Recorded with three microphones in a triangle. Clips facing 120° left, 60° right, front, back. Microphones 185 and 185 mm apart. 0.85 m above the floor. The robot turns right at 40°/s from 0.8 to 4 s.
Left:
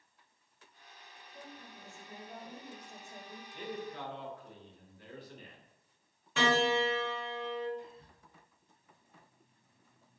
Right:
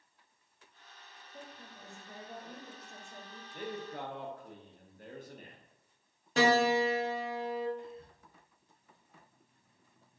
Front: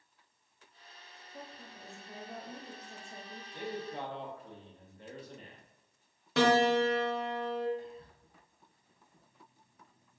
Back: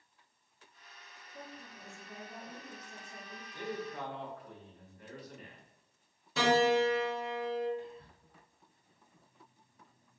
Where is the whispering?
45° right, 1.2 m.